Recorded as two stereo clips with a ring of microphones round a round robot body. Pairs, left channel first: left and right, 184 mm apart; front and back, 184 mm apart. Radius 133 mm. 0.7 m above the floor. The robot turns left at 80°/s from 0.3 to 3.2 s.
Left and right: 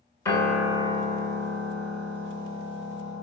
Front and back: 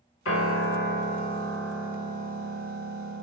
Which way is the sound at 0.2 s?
15° left.